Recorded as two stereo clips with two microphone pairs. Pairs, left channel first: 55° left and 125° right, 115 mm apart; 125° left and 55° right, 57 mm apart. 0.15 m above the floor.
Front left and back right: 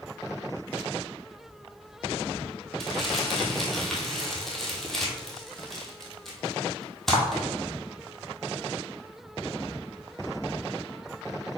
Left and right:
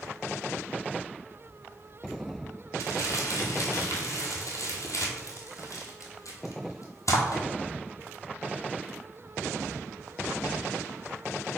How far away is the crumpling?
About 1.0 m.